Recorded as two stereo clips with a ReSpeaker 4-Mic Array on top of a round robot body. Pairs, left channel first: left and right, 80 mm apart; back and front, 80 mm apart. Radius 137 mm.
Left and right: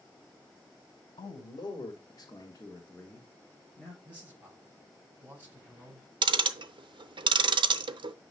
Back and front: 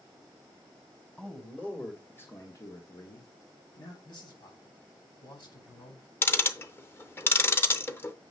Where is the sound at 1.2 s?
100° left, 2 m; by 3.9 s straight behind, 1.8 m.